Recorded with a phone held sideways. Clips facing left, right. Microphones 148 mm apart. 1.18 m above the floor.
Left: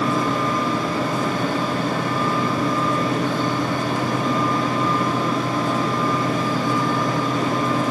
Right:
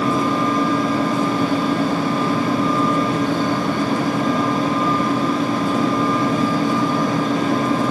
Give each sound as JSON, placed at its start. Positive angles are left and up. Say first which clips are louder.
{"t": 0.0, "sound": "a fan", "louder": "right 3 dB", "side_deg": -30, "distance_m": 3.0}